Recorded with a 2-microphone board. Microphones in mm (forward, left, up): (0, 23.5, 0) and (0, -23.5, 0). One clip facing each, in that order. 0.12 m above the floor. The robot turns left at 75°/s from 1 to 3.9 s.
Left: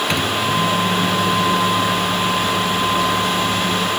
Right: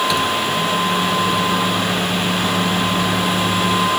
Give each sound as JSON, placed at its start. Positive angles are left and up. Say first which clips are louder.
{"t": 0.1, "sound": "a microwave", "louder": "right 1 dB", "azimuth_deg": 60, "distance_m": 1.2}